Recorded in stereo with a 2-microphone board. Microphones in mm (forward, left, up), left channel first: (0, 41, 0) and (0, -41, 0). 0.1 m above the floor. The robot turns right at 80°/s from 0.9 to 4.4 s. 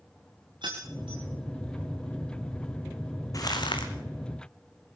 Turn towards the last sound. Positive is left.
turn(degrees=130)